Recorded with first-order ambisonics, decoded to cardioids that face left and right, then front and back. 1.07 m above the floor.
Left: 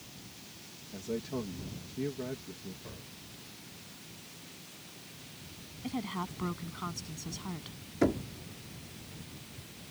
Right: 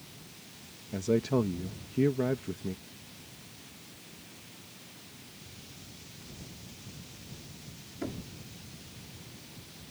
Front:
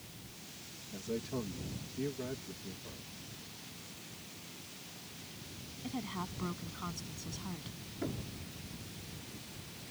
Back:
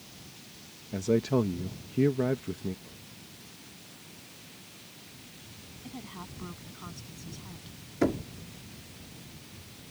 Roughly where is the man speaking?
Behind right.